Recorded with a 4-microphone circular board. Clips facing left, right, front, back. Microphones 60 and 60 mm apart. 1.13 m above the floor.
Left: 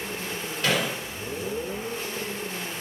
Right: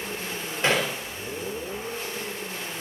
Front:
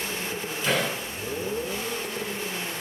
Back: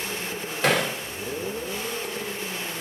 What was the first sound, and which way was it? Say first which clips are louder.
Hammering: right 2 dB, back 3 dB; 155° right.